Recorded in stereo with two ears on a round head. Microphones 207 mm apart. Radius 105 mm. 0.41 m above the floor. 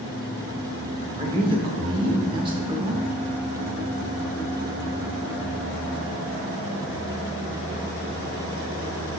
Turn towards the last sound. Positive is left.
turn(degrees=-20)  # may be behind; listen again after turning